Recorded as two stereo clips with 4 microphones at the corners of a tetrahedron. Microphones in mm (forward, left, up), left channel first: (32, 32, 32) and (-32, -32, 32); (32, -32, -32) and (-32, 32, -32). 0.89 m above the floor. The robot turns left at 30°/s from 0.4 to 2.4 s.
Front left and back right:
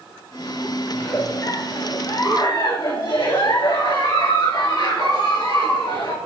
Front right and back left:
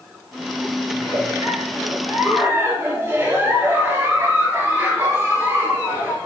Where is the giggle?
115° left, 2.5 m; by 6.2 s 70° left, 2.5 m.